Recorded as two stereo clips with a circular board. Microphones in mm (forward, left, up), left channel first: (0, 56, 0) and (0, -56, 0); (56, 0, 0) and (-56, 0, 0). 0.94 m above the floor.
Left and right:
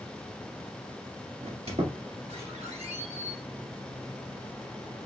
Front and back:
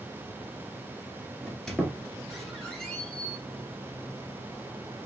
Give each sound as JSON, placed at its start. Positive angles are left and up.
{"t": 1.4, "sound": "a squeak", "azimuth_deg": -85, "distance_m": 1.9}